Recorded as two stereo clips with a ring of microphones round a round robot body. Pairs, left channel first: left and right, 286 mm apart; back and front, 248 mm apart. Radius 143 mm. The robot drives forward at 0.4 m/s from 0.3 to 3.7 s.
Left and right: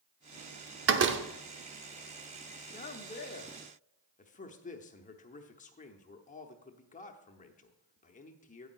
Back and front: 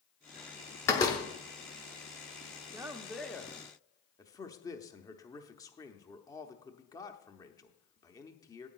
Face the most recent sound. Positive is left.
turn(degrees=120)